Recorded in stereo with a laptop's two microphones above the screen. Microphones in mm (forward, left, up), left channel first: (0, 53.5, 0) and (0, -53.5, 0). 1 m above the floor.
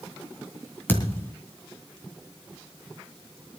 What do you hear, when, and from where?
0.9 s a thud: 20° left (ahead or behind), 2.5 m